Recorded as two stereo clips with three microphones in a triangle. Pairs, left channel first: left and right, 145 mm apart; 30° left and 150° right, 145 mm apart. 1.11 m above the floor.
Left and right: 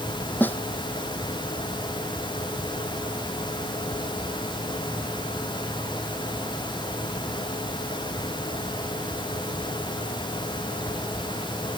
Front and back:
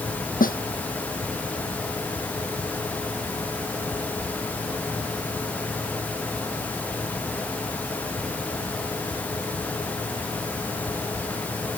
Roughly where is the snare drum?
Ahead.